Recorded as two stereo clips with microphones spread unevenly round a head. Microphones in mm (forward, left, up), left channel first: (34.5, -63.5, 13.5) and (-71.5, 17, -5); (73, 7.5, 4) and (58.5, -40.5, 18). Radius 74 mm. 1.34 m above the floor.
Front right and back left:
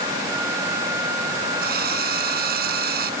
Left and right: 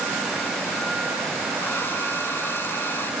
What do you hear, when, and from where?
1.6 s a drill: 150° left